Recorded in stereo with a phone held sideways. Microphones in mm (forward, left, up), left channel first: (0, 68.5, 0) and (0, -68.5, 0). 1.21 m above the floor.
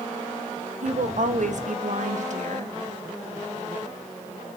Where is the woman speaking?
60° right (ahead or behind), 0.9 m.